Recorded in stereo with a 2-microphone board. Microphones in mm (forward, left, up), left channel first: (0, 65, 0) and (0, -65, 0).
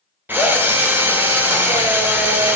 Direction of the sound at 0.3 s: 15° right (ahead or behind).